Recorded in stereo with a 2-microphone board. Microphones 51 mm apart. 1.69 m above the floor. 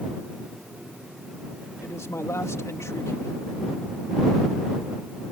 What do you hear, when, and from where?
1.8 s a man speaking: 75° left (ahead or behind)